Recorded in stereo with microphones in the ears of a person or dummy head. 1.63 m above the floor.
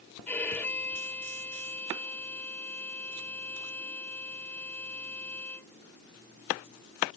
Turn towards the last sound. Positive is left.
turn(degrees=15)  # may be behind; listen again after turning